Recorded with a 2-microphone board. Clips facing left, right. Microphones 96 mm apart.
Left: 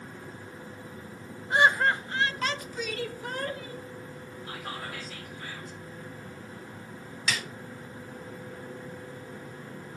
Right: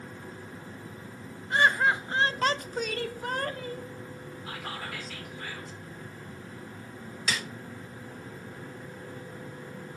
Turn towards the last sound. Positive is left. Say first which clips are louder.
# even
turn(degrees=-40)  # may be behind; listen again after turning